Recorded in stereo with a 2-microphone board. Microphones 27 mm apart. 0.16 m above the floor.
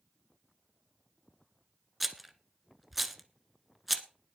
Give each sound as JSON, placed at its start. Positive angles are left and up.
{"t": 2.0, "sound": "a rattle", "side_deg": -5, "distance_m": 1.4}